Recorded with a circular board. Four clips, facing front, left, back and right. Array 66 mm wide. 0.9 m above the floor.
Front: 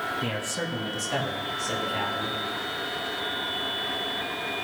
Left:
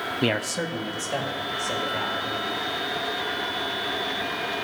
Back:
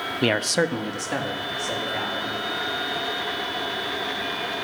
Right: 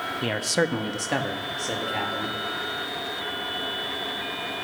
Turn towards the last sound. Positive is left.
turn(degrees=-95)